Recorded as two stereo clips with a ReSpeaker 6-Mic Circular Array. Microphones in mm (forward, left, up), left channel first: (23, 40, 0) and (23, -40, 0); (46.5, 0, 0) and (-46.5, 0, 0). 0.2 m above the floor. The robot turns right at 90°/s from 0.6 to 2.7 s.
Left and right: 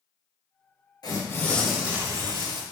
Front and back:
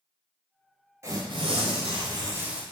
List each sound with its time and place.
1.0 s tearing paper: 120° left, 0.6 m; by 2.6 s 95° right, 0.6 m